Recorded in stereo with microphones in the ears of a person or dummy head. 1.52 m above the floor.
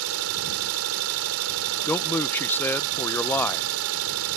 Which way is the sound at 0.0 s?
80° right.